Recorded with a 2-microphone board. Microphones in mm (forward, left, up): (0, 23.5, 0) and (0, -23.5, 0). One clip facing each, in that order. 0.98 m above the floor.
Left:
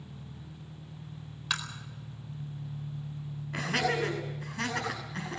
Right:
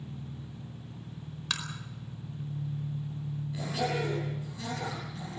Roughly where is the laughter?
Left.